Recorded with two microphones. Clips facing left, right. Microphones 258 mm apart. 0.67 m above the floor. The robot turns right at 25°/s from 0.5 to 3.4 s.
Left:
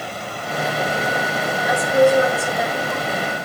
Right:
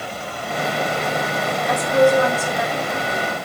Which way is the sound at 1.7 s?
10° left.